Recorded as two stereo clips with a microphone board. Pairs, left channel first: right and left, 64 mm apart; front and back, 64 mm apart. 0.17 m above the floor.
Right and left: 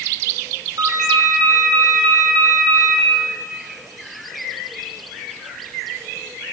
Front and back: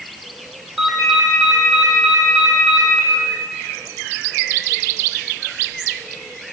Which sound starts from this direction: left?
A ringtone, at 0.8 s.